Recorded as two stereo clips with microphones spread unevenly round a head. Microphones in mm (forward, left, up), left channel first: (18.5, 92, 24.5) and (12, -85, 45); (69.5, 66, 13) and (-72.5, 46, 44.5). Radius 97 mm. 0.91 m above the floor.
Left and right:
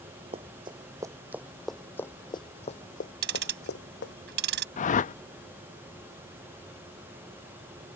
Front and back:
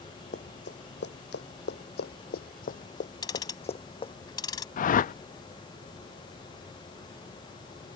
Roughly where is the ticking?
Ahead right.